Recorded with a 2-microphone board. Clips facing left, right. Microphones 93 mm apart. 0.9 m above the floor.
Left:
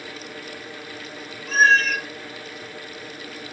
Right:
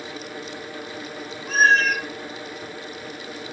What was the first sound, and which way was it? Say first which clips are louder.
A cat meowing: even; 45° right (ahead or behind).